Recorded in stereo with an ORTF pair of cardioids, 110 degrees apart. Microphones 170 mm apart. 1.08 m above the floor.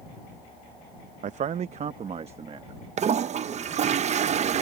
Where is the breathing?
No breathing in this recording.